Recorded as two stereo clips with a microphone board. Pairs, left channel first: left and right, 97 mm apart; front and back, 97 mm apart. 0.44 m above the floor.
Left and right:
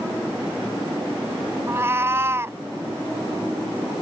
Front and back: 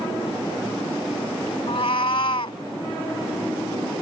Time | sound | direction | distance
1.7 | a cat meowing | 25° right | ?